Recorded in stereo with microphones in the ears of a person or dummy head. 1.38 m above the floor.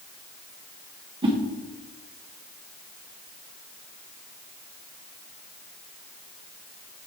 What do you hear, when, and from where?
1.2 s a whoosh: 25° right (ahead or behind), 1.2 m